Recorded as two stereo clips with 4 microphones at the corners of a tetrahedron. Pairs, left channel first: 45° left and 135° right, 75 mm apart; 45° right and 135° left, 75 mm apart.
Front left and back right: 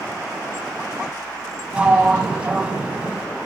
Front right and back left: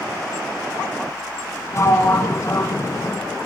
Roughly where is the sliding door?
Ahead right.